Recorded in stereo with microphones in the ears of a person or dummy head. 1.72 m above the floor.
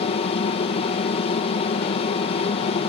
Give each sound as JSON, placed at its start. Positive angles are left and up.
{"t": 0.0, "sound": "an aircraft", "side_deg": 30}